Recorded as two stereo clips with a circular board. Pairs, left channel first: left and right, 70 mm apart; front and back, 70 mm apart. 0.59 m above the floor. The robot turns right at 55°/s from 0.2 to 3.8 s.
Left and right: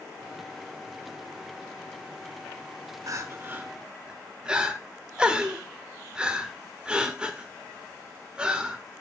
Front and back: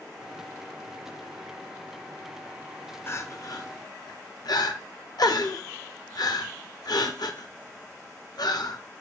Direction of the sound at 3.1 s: 55° right.